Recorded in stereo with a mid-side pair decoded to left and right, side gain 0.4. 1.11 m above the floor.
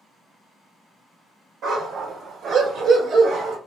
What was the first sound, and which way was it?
A dog barking, 70° right.